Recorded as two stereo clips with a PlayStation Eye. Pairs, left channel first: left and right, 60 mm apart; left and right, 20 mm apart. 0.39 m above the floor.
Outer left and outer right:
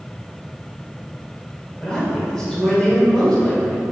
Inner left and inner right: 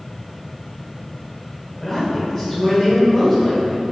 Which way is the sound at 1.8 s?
15° left (ahead or behind).